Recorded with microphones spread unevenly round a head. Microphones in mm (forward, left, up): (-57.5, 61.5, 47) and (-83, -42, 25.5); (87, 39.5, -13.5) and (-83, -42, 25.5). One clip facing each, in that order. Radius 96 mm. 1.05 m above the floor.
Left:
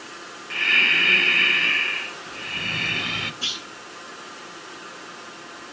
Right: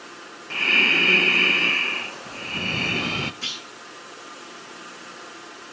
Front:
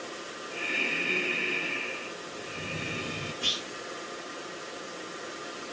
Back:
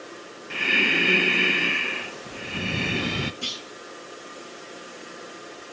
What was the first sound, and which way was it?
Breathing, 150° right.